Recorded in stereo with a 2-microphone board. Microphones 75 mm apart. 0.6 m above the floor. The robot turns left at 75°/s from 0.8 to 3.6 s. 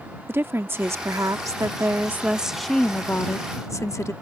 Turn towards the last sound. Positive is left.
turn(degrees=105)